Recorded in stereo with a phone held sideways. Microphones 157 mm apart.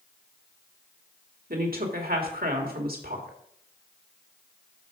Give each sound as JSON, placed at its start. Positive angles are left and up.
{"t": 1.5, "sound": "a woman speaking", "side_deg": -70, "distance_m": 2.0}